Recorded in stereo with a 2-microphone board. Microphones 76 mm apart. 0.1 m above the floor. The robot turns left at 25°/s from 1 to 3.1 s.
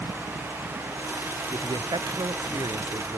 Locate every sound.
1.5 s a man speaking: 75° right; by 3.2 s 115° right